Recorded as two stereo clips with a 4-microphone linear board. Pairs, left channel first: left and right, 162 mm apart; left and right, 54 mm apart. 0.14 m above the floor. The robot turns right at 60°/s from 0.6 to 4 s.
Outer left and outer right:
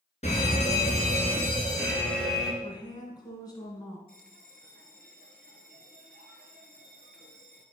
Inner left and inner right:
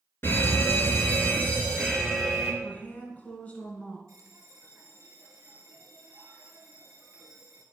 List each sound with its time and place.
0.2 s a fire alarm: 75° left, 2.5 m; by 2.5 s 170° right, 2.5 m
2.6 s a woman speaking: 25° left (ahead or behind), 1.6 m; by 4.0 s 15° left (ahead or behind), 1.6 m
4.1 s a bell: 65° right (ahead or behind), 1.2 m